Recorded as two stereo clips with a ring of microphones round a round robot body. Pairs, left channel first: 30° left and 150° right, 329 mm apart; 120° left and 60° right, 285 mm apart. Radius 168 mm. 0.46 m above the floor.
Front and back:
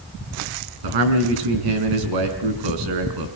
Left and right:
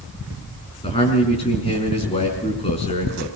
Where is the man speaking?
165° right, 5 m.